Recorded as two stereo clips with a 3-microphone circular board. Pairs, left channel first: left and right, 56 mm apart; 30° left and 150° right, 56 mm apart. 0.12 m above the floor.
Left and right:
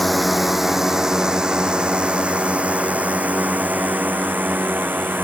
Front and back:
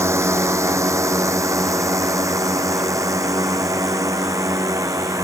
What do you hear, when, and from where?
0.0 s a drone: straight behind; by 5.2 s 140° right